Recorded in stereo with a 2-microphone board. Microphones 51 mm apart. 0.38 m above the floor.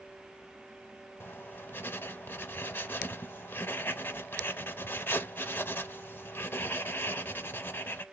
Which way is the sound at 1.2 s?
45° left (ahead or behind).